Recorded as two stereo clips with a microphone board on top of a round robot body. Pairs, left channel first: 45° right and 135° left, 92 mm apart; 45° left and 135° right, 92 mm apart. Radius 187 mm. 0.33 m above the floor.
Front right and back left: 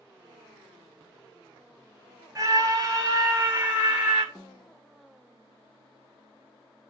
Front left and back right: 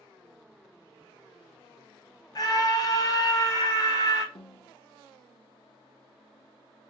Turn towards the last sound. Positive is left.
turn(degrees=50)